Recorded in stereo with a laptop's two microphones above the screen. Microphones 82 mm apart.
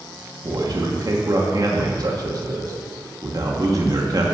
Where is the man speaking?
50° right (ahead or behind), 1.8 m.